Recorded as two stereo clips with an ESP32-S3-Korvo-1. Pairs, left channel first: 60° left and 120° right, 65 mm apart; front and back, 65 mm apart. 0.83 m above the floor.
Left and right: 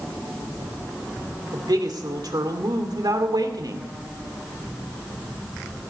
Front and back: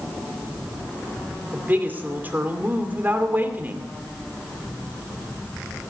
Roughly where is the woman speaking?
Behind right.